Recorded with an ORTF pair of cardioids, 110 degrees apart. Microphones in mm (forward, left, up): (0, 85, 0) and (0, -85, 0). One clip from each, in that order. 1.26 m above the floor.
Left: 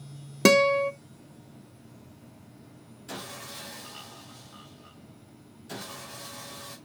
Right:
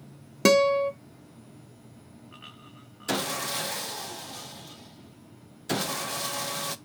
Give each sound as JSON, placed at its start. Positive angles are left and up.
{"t": 0.5, "sound": "a guitar", "azimuth_deg": 10, "distance_m": 0.7}
{"t": 3.1, "sound": "sawing", "azimuth_deg": -65, "distance_m": 0.7}